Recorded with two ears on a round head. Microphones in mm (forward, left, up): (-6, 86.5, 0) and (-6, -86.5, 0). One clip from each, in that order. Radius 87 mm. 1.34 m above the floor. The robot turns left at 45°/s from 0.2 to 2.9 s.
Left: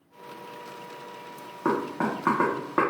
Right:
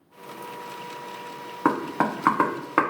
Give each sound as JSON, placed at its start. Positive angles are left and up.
{"t": 1.6, "sound": "knocking", "side_deg": -60, "distance_m": 0.5}